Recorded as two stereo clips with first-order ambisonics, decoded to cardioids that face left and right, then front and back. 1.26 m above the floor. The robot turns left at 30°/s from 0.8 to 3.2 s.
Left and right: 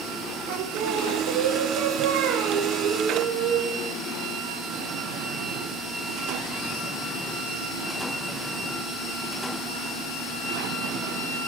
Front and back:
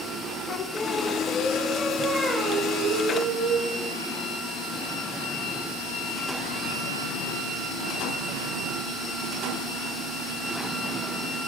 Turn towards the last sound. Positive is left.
turn(degrees=-135)